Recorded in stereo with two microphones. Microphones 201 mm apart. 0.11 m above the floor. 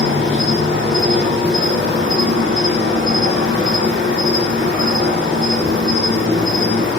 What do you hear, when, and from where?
0.0 s an insect: 75° right (ahead or behind), 1.5 m